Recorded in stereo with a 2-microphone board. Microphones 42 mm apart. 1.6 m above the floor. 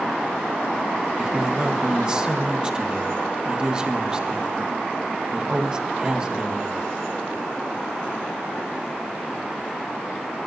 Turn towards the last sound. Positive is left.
turn(degrees=-20)  # may be behind; listen again after turning